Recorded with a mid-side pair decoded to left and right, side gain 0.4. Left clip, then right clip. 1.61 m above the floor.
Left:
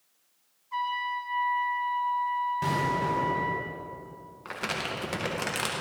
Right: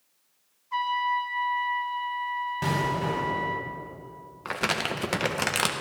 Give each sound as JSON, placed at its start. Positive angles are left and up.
{"t": 0.7, "sound": "a trumpet", "azimuth_deg": -40, "distance_m": 1.5}
{"t": 2.6, "sound": "an explosion", "azimuth_deg": -30, "distance_m": 4.0}
{"t": 4.5, "sound": "crumpling", "azimuth_deg": -50, "distance_m": 1.4}